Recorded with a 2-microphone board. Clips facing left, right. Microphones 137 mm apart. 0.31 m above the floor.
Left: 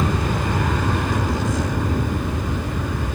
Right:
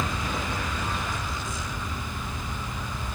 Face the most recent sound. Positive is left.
turn(degrees=65)  # may be behind; listen again after turning